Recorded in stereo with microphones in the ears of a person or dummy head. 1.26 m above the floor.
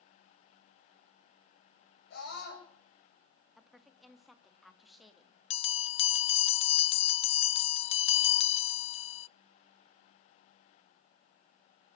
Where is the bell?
35° left (ahead or behind), 0.6 m.